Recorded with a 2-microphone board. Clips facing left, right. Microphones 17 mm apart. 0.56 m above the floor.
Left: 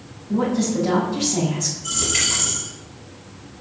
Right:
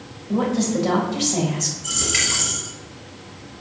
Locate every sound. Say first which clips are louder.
0.3 s a woman speaking: even; 55° right (ahead or behind), 3.5 m
1.8 s a dropped coin: right 1 dB; 30° right (ahead or behind), 4 m